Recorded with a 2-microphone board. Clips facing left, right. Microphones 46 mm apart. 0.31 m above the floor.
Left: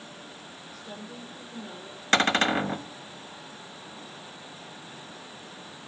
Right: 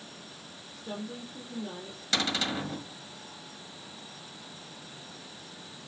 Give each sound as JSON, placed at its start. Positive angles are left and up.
{"t": 0.7, "sound": "a woman speaking", "side_deg": -15, "distance_m": 5.0}
{"t": 2.1, "sound": "a cupboard door", "side_deg": 45, "distance_m": 1.2}